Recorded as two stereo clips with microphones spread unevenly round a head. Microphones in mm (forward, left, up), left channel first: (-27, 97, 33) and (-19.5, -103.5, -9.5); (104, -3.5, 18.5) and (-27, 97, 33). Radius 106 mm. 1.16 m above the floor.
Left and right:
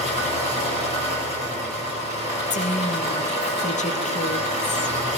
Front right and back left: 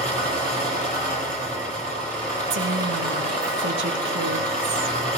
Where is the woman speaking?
150° left, 1.1 m.